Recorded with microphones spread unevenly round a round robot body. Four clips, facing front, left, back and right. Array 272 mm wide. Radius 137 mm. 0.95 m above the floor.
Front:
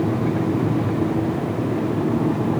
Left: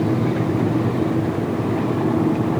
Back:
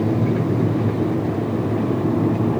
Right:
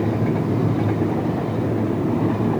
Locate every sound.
Only background noise.